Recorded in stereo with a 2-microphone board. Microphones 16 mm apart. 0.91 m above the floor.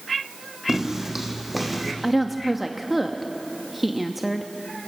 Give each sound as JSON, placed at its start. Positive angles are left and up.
{"t": 0.7, "sound": "footsteps", "side_deg": -30, "distance_m": 3.0}
{"t": 2.0, "sound": "a woman speaking", "side_deg": -5, "distance_m": 1.0}